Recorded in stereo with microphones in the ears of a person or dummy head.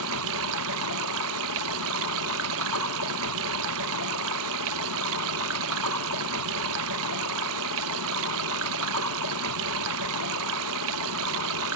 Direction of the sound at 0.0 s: 75° right (ahead or behind).